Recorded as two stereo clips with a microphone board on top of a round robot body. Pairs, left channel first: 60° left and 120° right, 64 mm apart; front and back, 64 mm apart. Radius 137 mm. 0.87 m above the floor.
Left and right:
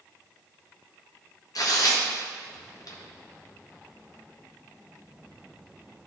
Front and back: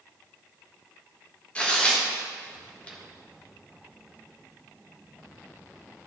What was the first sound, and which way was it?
Tearing paper, 70° left.